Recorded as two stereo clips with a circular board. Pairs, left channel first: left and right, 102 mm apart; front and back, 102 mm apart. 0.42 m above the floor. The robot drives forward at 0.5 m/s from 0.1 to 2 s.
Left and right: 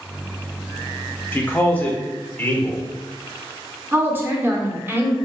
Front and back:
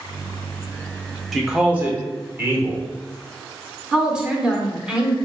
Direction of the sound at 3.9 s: 115° right.